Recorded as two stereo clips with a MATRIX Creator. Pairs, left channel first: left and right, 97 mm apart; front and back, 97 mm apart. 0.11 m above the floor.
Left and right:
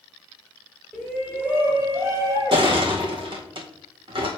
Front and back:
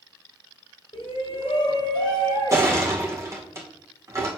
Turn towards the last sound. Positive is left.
turn(degrees=-120)